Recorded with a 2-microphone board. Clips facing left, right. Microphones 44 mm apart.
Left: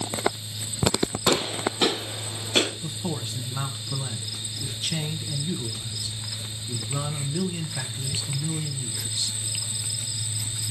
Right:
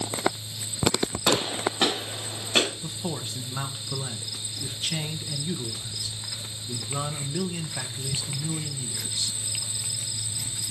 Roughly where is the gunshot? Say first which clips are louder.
Even; right.